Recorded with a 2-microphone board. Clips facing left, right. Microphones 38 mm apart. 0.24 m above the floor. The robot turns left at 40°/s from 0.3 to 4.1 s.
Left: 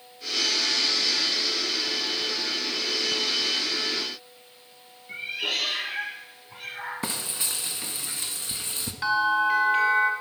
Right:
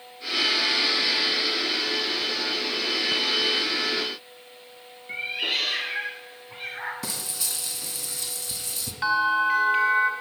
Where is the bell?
10° right (ahead or behind), 1.9 m.